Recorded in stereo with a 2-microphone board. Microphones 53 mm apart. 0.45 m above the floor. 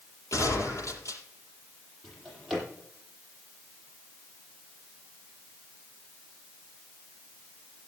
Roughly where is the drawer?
Centre.